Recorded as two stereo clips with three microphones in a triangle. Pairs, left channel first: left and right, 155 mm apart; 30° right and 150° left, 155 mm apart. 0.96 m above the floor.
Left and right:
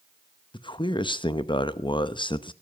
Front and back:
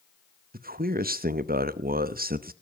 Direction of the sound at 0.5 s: 145° left.